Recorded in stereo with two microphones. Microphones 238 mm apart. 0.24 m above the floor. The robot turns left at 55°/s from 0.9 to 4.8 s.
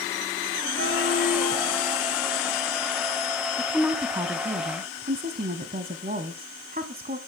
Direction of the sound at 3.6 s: 5° left.